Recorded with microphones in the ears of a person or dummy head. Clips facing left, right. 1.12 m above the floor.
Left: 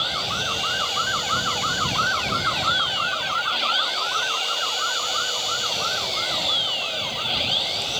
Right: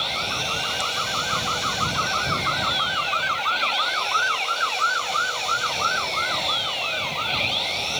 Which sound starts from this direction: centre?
An engine running, at 0.0 s.